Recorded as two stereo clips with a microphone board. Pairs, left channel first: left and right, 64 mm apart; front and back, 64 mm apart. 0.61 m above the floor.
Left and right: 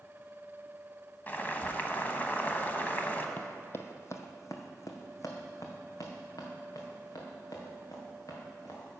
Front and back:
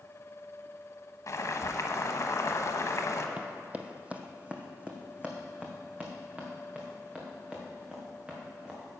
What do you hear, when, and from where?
1.3 s boiling: 30° left, 0.9 m
3.4 s running footsteps: 130° left, 0.7 m; by 9.0 s 105° left, 3.5 m